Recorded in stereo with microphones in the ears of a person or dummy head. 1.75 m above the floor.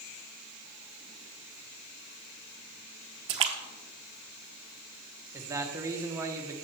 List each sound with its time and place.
3.3 s a splash: 30° right (ahead or behind), 1.0 m
5.3 s a man speaking: 15° right (ahead or behind), 1.1 m